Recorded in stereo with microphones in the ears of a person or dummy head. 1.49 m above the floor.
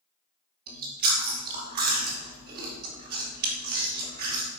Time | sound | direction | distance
0.7 | chewing | 50° right (ahead or behind) | 2.5 m